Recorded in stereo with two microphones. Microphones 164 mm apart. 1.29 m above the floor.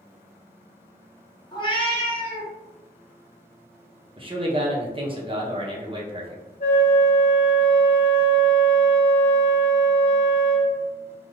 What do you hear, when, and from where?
1.5 s a cat meowing: 25° left (ahead or behind), 0.6 m; by 2.5 s 40° left (ahead or behind), 1.0 m
4.2 s a man speaking: 30° right (ahead or behind), 0.8 m
6.6 s a flute: 55° left (ahead or behind), 1.0 m